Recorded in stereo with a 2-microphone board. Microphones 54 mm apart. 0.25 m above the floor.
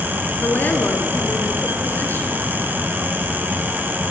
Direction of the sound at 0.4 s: 40° left (ahead or behind).